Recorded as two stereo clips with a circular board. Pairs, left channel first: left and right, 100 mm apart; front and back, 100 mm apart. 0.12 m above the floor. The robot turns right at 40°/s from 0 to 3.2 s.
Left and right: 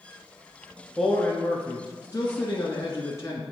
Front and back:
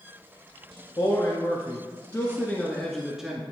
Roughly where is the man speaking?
Ahead.